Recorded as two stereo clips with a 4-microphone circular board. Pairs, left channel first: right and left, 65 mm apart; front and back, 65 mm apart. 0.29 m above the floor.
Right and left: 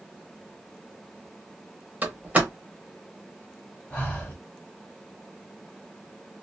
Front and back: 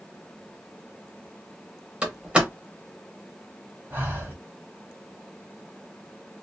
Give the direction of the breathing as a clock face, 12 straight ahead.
5 o'clock.